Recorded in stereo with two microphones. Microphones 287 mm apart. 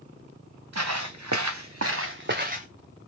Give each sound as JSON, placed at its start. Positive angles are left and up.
{"t": 0.7, "sound": "footsteps", "side_deg": -70, "distance_m": 0.8}